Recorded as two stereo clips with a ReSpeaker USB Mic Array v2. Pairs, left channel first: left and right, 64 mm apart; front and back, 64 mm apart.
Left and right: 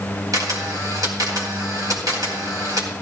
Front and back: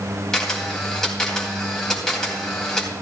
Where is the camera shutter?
80° right, 3 m.